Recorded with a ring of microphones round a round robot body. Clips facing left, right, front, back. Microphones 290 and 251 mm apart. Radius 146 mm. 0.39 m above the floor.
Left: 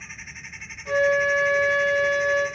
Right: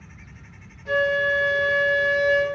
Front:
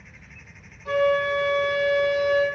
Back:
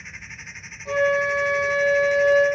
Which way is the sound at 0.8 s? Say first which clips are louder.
Left 2 dB, even; 35° left.